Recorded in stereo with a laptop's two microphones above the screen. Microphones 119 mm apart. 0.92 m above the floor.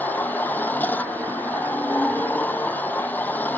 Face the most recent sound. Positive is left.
turn(degrees=15)  # may be behind; listen again after turning